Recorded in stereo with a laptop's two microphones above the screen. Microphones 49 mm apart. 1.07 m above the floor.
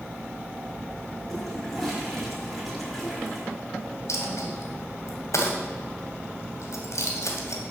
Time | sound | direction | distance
1.3 | a toilet flushing | 5° left (ahead or behind) | 6 m
4.1 | a dropped coin | 75° left (ahead or behind) | 2.5 m